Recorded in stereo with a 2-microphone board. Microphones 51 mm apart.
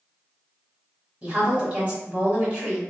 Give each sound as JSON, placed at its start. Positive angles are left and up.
{"t": 1.2, "sound": "a woman speaking", "side_deg": -30, "distance_m": 1.2}